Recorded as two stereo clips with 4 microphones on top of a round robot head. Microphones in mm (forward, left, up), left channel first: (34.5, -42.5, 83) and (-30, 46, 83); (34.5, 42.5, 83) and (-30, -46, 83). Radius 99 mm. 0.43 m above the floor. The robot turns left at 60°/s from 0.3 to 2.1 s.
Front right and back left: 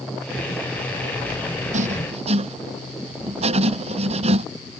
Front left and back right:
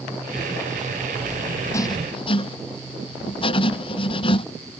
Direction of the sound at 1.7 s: 120° left.